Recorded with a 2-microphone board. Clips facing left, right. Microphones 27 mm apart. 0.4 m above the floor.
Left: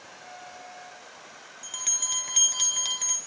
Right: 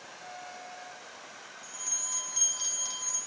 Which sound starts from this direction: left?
A bell, at 1.6 s.